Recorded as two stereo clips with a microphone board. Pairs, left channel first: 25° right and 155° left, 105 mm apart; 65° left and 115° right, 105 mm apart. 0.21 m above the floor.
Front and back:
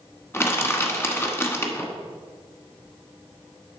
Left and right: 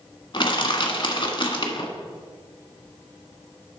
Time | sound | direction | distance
0.3 | crushing | 40° left | 1.2 m